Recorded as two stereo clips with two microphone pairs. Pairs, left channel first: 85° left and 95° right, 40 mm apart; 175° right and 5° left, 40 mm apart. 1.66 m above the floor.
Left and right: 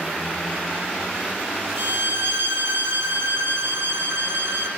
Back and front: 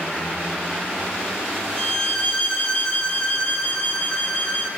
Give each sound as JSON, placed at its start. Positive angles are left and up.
{"t": 1.8, "sound": "a violin", "azimuth_deg": -120, "distance_m": 3.0}